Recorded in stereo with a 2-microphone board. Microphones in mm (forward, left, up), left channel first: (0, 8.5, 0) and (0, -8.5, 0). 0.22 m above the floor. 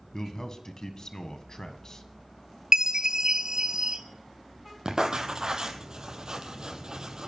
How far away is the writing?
About 1.6 m.